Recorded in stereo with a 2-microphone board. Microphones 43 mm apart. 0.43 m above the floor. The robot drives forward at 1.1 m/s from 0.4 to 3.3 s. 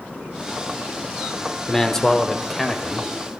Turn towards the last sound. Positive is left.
turn(degrees=5)  # may be behind; listen again after turning